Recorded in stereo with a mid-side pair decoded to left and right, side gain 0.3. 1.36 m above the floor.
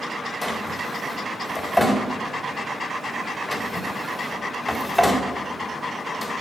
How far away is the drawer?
About 3.5 m.